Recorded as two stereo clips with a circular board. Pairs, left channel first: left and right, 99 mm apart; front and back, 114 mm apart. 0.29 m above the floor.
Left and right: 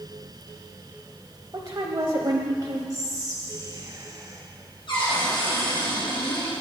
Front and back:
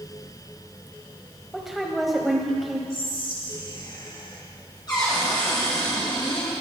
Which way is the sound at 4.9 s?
55° left.